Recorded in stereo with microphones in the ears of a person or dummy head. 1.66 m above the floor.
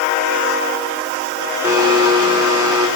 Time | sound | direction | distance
1.6 | a blender | 10° right (ahead or behind) | 5 m